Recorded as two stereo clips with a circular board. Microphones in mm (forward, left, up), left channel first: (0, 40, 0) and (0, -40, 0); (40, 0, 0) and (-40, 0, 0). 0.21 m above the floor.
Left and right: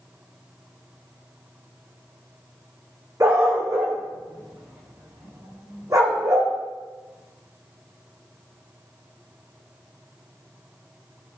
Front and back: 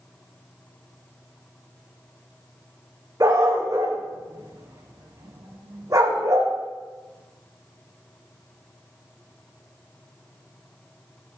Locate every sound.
3.2 s a dog barking: 140° right, 3.5 m